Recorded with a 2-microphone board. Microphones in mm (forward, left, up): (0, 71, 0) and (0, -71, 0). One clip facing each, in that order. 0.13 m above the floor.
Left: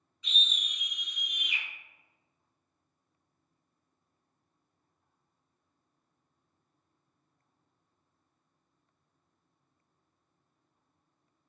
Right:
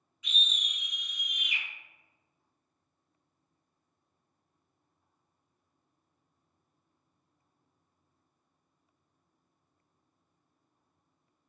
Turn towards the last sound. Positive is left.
turn(degrees=30)  # may be behind; listen again after turning